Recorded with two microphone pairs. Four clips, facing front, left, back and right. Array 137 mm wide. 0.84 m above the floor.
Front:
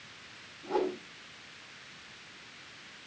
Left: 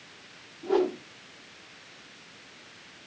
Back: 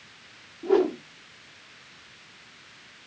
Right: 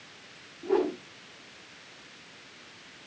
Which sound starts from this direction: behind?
A whoosh, at 0.6 s.